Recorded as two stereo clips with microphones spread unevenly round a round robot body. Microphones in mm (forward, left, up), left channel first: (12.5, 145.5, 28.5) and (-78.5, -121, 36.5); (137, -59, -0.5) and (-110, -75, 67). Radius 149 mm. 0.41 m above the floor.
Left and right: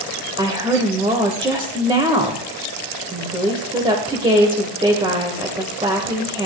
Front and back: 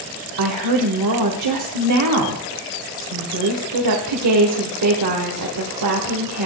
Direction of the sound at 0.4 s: Straight behind.